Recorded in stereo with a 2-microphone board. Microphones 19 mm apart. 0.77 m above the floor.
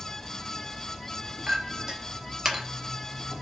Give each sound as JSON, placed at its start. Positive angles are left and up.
{"t": 0.0, "sound": "an insect", "side_deg": 10, "distance_m": 1.6}
{"t": 1.5, "sound": "a clink", "side_deg": -30, "distance_m": 1.0}